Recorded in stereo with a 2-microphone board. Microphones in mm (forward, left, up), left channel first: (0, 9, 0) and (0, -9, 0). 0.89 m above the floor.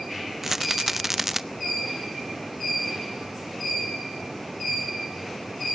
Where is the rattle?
20° right (ahead or behind), 0.5 m.